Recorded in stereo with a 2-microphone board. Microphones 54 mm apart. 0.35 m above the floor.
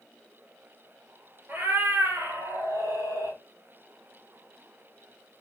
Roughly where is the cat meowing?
Right.